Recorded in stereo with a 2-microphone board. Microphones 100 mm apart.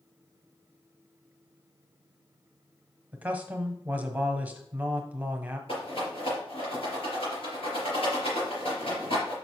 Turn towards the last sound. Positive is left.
turn(degrees=65)  # may be behind; listen again after turning